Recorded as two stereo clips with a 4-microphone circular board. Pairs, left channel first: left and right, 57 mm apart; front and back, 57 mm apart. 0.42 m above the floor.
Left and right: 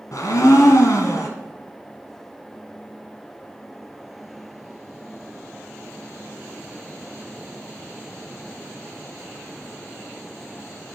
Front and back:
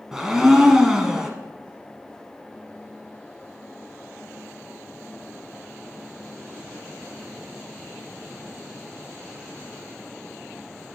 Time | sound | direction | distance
0.1 | a blender | 100° left | 1.1 m